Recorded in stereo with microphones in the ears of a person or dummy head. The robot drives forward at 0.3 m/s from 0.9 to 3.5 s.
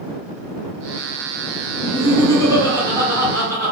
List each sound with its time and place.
1.8 s laughter: 15° left (ahead or behind), 1.8 m